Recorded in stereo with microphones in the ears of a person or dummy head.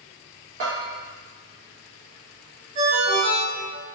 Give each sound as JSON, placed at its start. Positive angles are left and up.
{"t": 0.6, "sound": "a bell", "side_deg": -30, "distance_m": 0.7}
{"t": 2.8, "sound": "a ringtone", "side_deg": -35, "distance_m": 1.1}